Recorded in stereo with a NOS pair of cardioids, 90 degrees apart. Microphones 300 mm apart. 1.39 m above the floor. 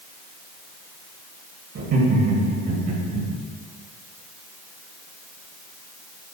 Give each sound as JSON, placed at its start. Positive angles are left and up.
{"t": 1.8, "sound": "laughter", "azimuth_deg": -60, "distance_m": 2.5}